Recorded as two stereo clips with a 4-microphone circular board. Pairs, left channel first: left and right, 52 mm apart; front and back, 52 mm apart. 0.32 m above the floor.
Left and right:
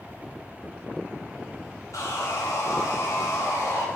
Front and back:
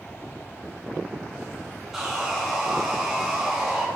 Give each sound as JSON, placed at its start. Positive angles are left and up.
{"t": 1.9, "sound": "sawing", "azimuth_deg": 90, "distance_m": 2.5}